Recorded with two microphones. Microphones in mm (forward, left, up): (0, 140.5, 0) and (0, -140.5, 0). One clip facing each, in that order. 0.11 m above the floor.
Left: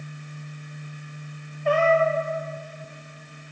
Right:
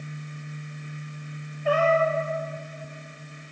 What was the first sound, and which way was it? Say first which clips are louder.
A cat meowing: left 2 dB; 5° right (ahead or behind).